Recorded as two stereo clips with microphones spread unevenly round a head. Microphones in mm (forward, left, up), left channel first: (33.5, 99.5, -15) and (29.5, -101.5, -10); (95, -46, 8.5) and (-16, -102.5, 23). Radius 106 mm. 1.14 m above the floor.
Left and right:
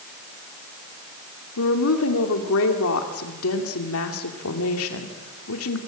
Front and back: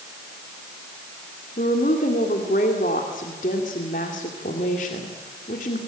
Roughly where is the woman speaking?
Left.